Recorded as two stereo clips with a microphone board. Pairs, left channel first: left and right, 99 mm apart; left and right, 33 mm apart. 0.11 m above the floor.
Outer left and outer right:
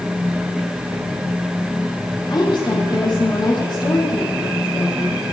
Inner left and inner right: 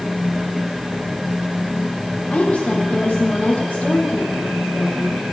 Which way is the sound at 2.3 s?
50° left (ahead or behind).